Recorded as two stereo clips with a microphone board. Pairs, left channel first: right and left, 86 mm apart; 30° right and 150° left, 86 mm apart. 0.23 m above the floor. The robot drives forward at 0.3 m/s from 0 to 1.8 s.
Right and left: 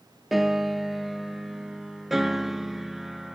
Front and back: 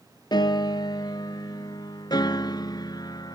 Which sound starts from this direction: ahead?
A piano, at 0.3 s.